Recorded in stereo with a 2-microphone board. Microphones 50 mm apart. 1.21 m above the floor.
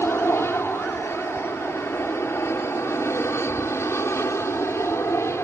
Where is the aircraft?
65° left (ahead or behind); by 5.5 s 70° left (ahead or behind).